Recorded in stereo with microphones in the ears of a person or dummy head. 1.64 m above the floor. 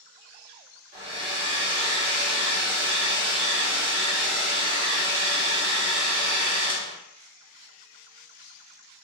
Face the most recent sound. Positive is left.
turn(degrees=-35)  # may be behind; listen again after turning